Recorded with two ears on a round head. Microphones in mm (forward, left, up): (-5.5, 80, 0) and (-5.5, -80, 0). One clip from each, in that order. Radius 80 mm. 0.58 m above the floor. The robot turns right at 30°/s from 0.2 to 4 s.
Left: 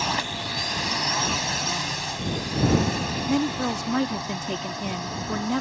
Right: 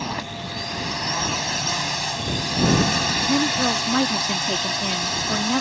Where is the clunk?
No clunk in this recording.